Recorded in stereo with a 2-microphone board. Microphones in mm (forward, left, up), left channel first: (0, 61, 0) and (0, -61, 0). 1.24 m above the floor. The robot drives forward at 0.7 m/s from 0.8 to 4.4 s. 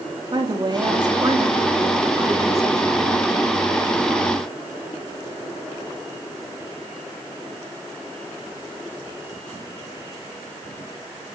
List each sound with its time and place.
0.3 s a woman speaking: 40° right (ahead or behind), 3 m; by 3.6 s 25° right (ahead or behind), 5 m